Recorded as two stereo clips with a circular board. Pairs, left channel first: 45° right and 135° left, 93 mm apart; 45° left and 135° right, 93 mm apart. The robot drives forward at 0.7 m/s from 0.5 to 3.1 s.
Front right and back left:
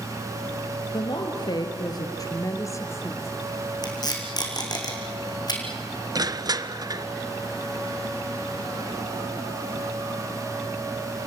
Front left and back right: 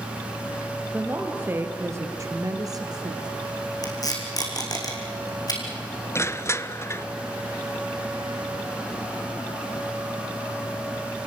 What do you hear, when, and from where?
0.9 s a woman speaking: 65° right, 2.5 m; by 3.3 s 100° right, 2.5 m
3.8 s tape being pulled: straight ahead, 4 m
6.2 s crushing: 100° left, 0.8 m